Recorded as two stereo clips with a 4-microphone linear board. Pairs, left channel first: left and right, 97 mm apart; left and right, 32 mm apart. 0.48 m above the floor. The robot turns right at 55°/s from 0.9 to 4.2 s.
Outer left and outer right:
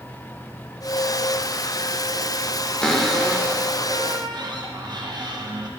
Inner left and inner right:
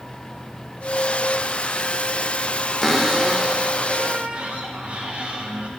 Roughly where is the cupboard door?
Behind.